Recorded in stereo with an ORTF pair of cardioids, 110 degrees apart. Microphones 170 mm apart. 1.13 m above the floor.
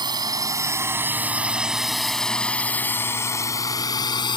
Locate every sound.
0.0 s a drone: 25° right; by 4.4 s 25° left